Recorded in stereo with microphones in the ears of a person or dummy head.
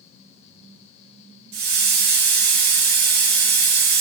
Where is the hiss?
45° right (ahead or behind), 0.6 m.